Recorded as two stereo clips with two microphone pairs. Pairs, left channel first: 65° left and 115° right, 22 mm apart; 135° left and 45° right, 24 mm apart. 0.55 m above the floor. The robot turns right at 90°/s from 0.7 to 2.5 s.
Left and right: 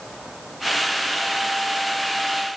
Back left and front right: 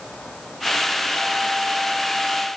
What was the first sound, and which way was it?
Only background noise.